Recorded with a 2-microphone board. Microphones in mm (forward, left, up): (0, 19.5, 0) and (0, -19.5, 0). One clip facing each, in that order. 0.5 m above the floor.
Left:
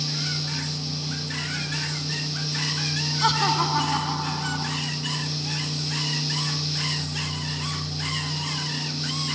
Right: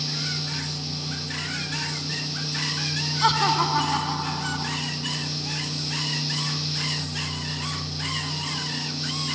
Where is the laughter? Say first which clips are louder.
Right 1 dB; 10° right (ahead or behind); by 4.8 s centre (ahead or behind).